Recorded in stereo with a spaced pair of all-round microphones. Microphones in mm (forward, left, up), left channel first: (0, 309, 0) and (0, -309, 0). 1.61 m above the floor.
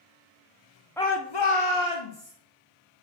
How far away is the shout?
About 0.6 m.